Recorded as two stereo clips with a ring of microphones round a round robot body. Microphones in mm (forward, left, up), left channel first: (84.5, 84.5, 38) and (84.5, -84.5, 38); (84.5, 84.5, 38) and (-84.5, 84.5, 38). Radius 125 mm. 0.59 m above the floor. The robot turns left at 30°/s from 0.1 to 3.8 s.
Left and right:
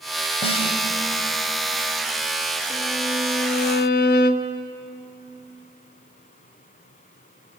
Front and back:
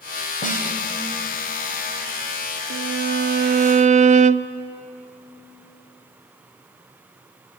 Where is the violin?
165° left, 0.7 m; by 4.6 s 130° left, 0.7 m.